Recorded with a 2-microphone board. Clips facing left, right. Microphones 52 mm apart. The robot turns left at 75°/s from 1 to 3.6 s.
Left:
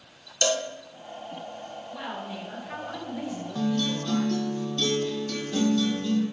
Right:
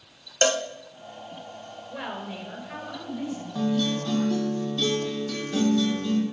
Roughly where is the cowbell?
Right.